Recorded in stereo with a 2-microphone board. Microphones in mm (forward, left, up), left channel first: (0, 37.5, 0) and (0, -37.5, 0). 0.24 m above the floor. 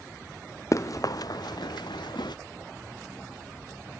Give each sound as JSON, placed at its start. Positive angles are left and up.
{"t": 0.7, "sound": "running footsteps", "side_deg": 45}